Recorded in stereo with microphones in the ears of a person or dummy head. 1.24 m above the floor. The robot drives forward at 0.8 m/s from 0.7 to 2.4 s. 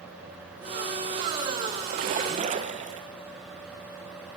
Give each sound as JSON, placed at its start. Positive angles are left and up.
{"t": 1.9, "sound": "a splash", "side_deg": -45, "distance_m": 1.1}